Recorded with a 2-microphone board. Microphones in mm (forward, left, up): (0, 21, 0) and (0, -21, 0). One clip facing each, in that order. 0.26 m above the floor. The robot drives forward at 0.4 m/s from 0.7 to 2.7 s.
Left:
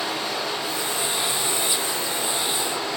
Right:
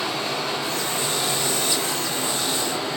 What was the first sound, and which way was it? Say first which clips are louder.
Running water: right 1 dB; 45° right (ahead or behind).